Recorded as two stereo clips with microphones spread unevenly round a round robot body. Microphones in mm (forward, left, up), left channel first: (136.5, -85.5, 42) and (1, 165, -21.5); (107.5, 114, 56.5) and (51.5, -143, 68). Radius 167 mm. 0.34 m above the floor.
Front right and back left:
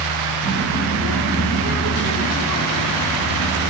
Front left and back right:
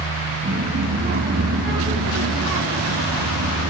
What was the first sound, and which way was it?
A child speaking, 170° right.